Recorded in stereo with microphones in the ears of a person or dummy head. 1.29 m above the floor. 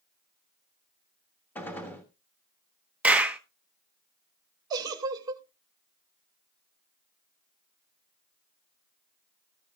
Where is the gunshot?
10° left (ahead or behind), 1.5 m.